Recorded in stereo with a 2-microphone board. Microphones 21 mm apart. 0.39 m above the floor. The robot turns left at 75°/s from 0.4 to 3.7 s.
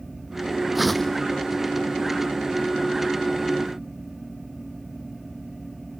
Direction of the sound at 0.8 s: 175° right.